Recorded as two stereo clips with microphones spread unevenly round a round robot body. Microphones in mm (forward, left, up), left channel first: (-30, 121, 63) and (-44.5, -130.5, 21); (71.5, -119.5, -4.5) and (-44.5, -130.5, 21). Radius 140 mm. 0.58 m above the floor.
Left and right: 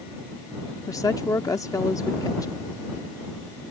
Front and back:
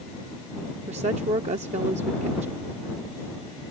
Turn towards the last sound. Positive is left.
turn(degrees=170)